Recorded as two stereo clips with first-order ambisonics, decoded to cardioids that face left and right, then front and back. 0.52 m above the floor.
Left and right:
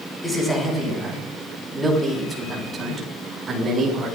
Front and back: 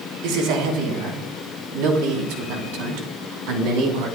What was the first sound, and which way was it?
A man speaking, 175° left.